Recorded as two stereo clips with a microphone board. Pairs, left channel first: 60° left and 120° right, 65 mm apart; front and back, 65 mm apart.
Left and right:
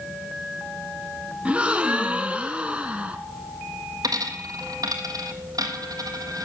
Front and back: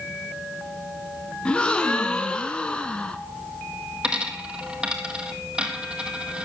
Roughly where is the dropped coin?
Right.